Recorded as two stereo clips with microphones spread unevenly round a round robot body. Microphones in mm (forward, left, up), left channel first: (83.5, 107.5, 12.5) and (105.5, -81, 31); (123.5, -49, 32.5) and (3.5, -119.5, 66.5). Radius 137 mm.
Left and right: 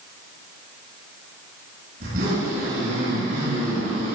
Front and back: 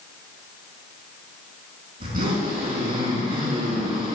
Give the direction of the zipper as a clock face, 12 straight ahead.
5 o'clock.